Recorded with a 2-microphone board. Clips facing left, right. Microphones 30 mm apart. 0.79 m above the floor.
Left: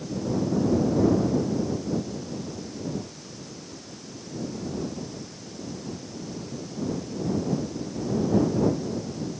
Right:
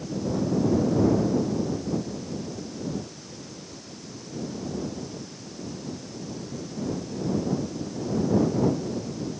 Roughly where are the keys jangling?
No keys jangling in this recording.